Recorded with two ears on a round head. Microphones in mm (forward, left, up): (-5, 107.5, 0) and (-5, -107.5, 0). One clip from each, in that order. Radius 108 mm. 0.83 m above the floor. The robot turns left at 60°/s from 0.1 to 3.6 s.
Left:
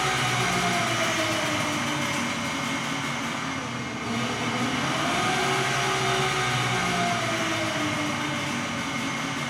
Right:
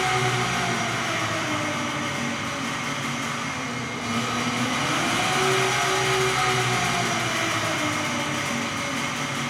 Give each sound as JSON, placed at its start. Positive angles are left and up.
{"t": 0.0, "sound": "an engine running", "azimuth_deg": 165, "distance_m": 1.5}